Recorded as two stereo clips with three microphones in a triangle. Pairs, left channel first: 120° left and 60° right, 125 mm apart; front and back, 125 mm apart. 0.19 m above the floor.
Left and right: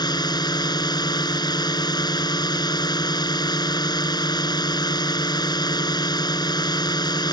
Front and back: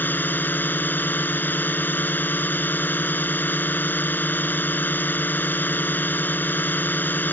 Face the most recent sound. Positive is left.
turn(degrees=70)